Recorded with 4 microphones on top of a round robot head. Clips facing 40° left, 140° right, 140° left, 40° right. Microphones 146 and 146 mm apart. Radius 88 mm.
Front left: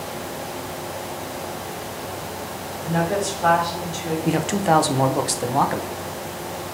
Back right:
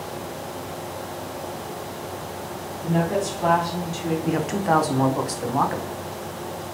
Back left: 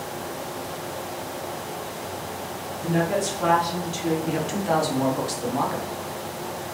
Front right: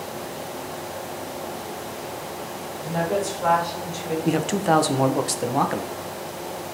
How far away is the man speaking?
About 0.7 m.